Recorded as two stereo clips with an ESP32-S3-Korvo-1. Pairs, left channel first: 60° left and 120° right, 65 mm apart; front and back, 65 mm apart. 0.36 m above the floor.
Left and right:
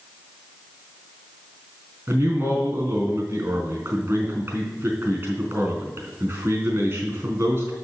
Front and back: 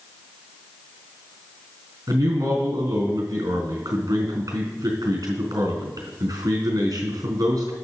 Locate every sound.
2.1 s a man speaking: 170° right, 3.5 m